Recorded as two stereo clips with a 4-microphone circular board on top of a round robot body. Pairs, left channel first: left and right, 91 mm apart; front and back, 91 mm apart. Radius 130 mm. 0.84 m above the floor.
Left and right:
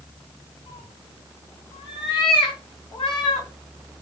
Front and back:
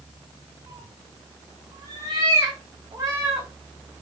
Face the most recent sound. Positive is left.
turn(degrees=125)